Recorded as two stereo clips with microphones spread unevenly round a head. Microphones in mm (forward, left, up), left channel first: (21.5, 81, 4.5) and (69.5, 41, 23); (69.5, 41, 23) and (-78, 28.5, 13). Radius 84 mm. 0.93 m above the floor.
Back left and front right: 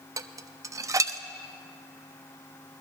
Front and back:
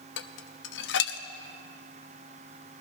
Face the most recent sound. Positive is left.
turn(degrees=-10)